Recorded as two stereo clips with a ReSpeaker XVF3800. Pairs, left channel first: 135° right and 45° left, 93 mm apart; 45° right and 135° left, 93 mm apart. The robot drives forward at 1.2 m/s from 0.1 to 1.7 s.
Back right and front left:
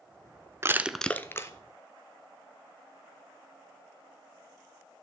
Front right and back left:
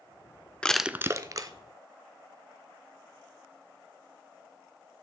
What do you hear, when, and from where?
0.6 s crushing: 20° left, 0.5 m; by 1.5 s 170° left, 0.9 m